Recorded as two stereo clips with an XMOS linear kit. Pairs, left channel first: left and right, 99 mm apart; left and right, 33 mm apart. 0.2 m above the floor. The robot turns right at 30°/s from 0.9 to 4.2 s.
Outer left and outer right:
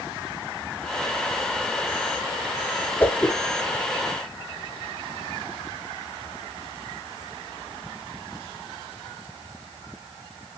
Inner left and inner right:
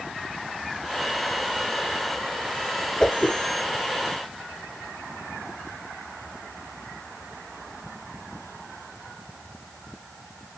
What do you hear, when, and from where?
3.0 s a whoosh: 20° left (ahead or behind), 1.1 m; by 3.4 s 10° left (ahead or behind), 1.1 m